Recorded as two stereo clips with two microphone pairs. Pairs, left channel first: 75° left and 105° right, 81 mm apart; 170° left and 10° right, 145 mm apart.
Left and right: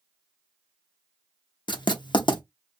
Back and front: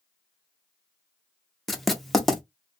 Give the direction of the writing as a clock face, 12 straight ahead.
9 o'clock.